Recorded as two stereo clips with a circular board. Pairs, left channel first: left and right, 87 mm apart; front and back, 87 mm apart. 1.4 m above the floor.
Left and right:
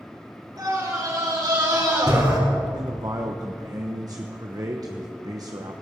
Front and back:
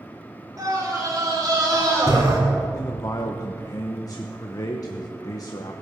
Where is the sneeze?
No sneeze in this recording.